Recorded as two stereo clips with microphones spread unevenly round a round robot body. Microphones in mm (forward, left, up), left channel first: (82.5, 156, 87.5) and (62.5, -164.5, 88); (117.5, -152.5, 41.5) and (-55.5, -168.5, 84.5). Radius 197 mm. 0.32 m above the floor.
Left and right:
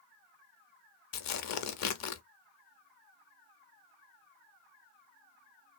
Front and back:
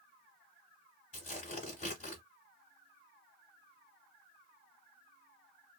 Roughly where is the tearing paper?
Ahead left.